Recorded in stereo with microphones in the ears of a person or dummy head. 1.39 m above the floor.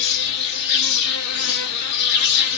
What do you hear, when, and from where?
0.0 s an insect: 60° left (ahead or behind), 0.7 m